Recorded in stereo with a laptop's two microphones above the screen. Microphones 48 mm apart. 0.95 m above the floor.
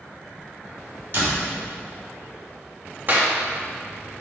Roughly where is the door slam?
Right.